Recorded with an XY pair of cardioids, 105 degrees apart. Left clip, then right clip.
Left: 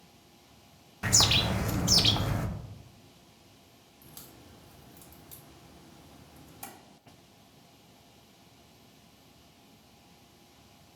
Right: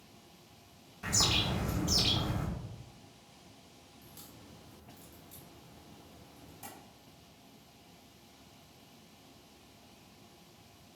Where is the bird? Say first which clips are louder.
Left 5 dB; 55° left, 0.6 m.